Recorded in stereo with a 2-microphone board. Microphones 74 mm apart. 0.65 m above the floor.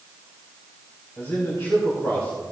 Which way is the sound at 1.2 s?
45° left (ahead or behind).